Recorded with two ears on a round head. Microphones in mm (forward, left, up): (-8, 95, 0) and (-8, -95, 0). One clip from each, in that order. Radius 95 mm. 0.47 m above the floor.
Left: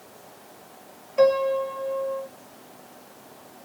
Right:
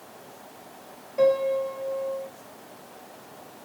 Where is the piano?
40° left (ahead or behind), 2.5 m.